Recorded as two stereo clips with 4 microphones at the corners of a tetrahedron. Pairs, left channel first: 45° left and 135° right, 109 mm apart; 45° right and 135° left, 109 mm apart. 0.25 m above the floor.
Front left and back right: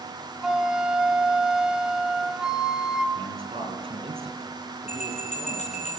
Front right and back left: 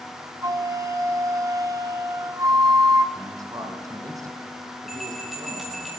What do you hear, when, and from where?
0.4 s a flute: 145° left, 1.5 m
3.1 s a man speaking: 165° right, 7.5 m
4.9 s a bell: 45° left, 5 m